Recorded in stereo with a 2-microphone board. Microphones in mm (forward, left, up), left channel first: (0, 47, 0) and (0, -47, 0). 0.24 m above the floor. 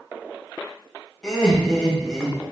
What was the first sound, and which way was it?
Laughter, 10° left (ahead or behind).